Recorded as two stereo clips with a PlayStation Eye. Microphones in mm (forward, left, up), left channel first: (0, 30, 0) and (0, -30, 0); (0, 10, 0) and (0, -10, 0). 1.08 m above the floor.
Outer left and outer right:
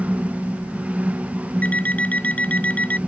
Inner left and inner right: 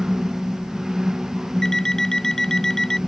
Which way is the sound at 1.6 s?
25° left (ahead or behind).